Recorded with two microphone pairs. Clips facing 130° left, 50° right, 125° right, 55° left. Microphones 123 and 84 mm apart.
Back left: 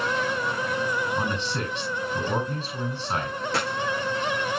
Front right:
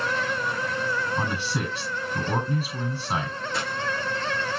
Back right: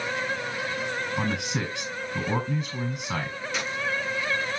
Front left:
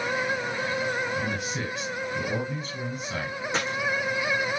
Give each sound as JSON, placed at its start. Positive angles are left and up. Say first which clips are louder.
{"t": 1.2, "sound": "a man speaking", "louder": "even, back right 1 dB", "azimuth_deg": -130, "distance_m": 7.5}
{"t": 3.5, "sound": "a dropped coin", "louder": "back left 3 dB, front left 3 dB", "azimuth_deg": 110, "distance_m": 4.5}